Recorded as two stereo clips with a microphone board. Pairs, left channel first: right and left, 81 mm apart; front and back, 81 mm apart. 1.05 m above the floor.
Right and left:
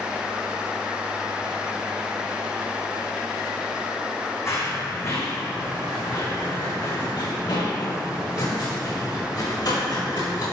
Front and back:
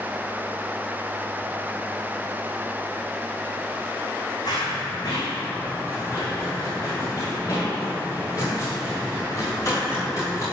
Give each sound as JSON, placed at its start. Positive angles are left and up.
{"t": 4.5, "sound": "running footsteps", "azimuth_deg": -35, "distance_m": 4.5}